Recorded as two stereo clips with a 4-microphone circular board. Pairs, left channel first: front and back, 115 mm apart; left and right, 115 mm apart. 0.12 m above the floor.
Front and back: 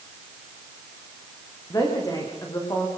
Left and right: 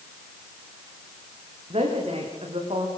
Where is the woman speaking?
60° right, 9 m.